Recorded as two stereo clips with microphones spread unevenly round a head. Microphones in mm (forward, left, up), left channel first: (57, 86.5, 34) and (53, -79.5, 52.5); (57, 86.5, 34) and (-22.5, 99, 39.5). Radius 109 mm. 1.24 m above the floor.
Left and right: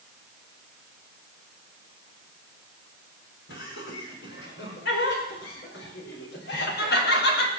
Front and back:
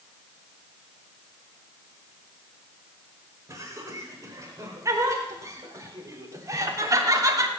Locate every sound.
3.5 s laughter: 120° left, 5 m; by 7.5 s 125° left, 2.5 m